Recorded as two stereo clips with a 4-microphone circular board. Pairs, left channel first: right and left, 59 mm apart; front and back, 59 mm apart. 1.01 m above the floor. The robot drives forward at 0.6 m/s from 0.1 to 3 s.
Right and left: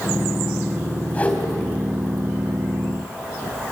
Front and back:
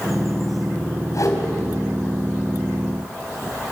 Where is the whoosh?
25° right, 4 m.